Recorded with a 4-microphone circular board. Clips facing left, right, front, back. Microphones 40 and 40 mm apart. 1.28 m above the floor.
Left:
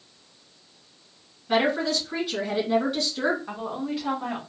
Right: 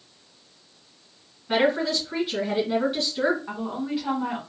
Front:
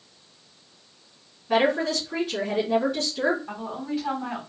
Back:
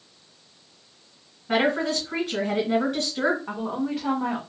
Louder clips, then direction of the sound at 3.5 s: Right 1 dB, back 3 dB; 170° right.